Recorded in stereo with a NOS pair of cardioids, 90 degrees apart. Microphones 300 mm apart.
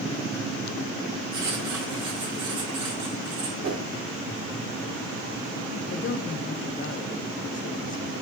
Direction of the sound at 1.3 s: 70° right.